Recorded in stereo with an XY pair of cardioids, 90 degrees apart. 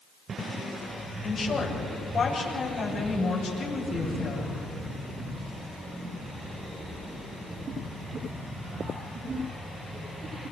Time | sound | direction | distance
1.2 | a woman speaking | 60° left | 8.5 m